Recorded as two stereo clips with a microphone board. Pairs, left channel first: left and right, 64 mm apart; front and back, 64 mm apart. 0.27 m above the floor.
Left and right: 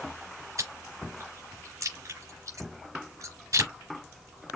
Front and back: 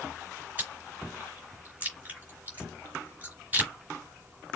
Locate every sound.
0.6 s chewing: 120° right, 3 m